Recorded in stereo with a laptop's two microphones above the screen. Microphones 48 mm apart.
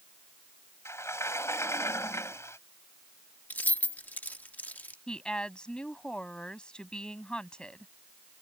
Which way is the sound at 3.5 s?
40° left (ahead or behind).